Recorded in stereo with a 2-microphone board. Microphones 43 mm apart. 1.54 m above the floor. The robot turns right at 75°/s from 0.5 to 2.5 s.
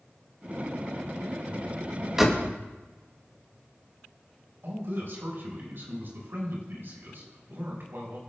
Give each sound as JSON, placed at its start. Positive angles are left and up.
{"t": 2.2, "sound": "a door slam", "side_deg": -5, "distance_m": 1.9}
{"t": 4.6, "sound": "a man speaking", "side_deg": -55, "distance_m": 6.0}